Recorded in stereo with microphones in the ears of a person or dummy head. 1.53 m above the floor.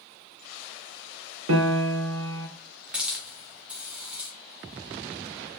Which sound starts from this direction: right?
A piano, at 1.5 s.